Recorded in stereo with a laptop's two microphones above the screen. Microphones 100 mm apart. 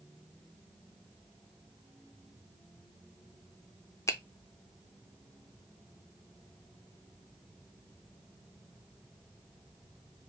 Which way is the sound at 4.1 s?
30° left (ahead or behind).